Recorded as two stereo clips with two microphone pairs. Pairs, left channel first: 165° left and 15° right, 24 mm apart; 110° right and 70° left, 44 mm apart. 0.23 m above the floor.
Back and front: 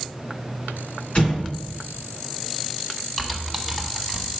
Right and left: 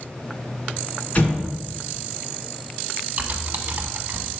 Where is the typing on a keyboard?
100° left, 0.8 m.